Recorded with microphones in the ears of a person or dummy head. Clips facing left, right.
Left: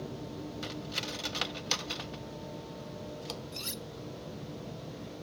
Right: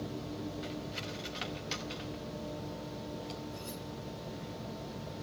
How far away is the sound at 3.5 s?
About 1.0 m.